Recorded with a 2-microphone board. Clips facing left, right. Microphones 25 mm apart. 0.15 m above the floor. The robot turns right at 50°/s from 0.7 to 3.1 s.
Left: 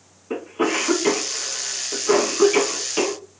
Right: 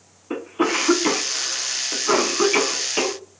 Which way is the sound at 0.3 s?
15° right (ahead or behind).